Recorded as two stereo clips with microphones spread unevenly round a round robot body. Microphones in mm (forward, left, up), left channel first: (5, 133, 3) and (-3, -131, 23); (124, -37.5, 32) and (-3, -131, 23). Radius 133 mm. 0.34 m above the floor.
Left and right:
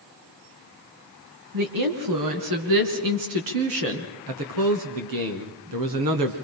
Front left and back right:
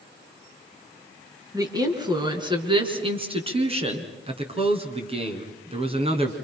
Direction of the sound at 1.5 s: 80° right.